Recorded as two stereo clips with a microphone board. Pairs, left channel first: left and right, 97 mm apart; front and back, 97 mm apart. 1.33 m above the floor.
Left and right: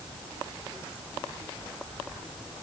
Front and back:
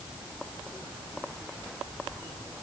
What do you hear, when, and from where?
Only background noise.